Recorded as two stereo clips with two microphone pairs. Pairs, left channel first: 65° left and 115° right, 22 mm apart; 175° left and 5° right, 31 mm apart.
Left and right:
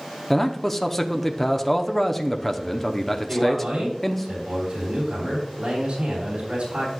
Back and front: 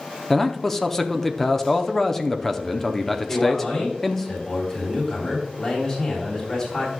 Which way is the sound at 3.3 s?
140° right.